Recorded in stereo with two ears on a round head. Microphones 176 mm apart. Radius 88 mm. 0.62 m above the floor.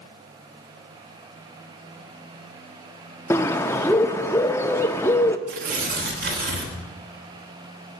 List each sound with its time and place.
3.3 s a bird: 15° left (ahead or behind), 0.6 m
5.5 s tearing paper: 45° right (ahead or behind), 1.5 m